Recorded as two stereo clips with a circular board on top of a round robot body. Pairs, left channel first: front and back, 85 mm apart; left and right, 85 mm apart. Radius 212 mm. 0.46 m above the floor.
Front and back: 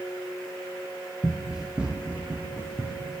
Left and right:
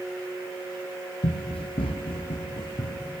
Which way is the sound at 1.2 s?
85° left.